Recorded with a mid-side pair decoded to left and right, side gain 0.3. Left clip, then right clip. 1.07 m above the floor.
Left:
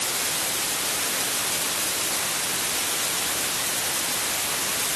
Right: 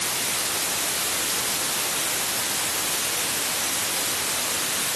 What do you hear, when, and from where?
Only background noise.